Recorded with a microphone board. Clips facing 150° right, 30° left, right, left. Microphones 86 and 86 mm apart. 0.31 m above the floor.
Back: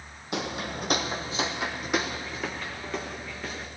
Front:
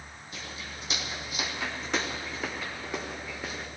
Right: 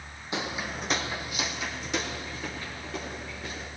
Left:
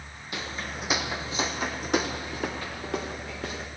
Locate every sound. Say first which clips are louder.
0.3 s footsteps: back 11 dB, right 3 dB; 155° right, 0.8 m; by 3.7 s 105° left, 2 m